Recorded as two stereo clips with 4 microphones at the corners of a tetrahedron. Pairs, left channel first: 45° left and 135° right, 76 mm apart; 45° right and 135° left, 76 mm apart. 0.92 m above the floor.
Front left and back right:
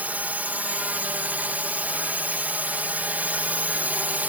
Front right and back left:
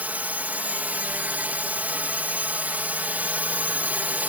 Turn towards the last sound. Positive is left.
turn(degrees=180)